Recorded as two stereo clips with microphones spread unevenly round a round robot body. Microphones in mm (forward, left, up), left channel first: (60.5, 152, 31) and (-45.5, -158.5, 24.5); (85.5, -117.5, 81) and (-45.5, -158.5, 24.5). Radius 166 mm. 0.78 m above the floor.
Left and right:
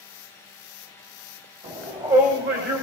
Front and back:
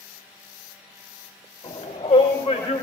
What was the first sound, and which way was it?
A shout, 40° right.